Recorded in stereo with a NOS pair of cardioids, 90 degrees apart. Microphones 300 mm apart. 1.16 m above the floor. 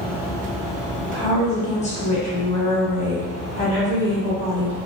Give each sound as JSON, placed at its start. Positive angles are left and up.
{"t": 1.1, "sound": "a woman speaking", "azimuth_deg": 20, "distance_m": 1.4}